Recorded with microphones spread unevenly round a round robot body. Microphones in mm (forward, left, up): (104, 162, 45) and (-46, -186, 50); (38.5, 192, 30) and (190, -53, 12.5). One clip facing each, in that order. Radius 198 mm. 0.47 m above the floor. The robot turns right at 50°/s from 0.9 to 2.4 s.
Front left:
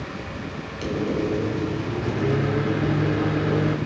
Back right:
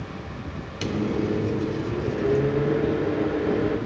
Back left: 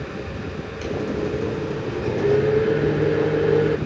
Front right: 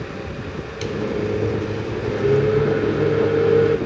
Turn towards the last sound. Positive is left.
turn(degrees=20)